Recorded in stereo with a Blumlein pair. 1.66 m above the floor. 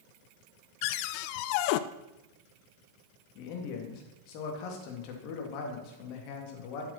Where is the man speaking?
40° left, 3 m.